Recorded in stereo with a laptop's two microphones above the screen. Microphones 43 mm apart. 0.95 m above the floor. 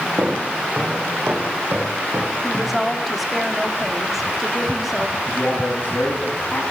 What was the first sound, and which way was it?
Footsteps, 60° right (ahead or behind).